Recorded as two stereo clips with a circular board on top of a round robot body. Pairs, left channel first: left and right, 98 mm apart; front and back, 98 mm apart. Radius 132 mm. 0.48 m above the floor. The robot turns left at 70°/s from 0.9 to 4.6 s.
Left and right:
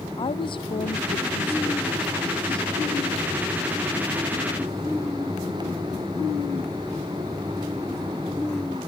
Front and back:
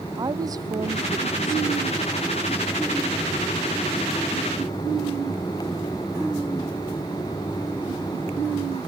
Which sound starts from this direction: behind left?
A woman speaking, at 0.2 s.